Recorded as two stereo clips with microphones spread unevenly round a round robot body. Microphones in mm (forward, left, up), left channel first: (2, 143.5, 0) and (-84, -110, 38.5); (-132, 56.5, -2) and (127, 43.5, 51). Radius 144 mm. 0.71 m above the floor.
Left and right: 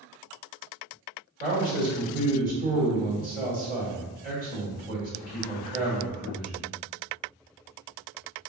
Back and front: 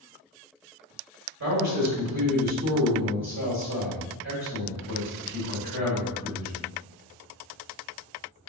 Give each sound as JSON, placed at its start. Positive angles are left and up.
{"t": 1.4, "sound": "a man speaking", "azimuth_deg": -50, "distance_m": 1.7}